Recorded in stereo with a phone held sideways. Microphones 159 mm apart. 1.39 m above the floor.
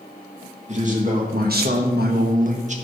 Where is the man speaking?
45° right (ahead or behind), 1.8 m; by 2.8 s 50° right (ahead or behind), 1.6 m.